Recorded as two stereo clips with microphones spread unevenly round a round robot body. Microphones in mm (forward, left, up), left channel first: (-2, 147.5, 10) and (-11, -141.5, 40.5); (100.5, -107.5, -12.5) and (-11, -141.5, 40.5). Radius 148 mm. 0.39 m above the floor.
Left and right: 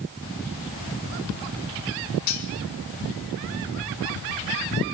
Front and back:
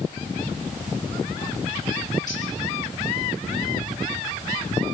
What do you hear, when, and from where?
2.3 s cutlery clinking: 85° left, 3 m